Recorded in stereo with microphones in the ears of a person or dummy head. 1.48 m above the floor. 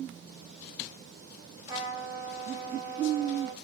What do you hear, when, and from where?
1.7 s a trumpet: 20° right (ahead or behind), 4 m